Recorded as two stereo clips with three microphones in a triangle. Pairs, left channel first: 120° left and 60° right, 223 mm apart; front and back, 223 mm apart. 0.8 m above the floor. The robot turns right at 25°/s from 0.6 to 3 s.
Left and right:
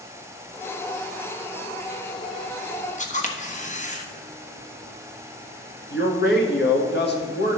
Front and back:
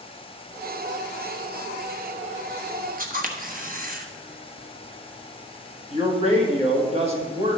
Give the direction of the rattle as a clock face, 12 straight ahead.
No rattle in this recording.